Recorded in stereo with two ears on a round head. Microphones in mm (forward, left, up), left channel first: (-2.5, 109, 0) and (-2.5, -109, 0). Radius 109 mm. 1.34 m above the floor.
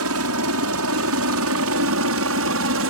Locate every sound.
0.0 s a helicopter: 65° right (ahead or behind); by 2.9 s 60° right (ahead or behind)